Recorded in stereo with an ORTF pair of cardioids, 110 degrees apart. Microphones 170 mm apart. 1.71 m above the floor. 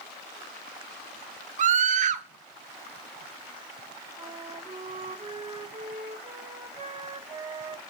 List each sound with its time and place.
1.6 s a scream: 45° right, 1.1 m
4.2 s a flute: 40° right, 3 m